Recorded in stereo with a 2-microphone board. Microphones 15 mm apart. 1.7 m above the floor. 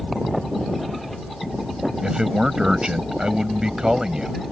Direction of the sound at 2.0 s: 50° right (ahead or behind).